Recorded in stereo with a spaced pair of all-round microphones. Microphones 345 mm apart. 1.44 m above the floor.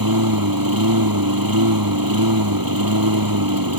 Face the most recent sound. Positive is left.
turn(degrees=-75)  # may be behind; listen again after turning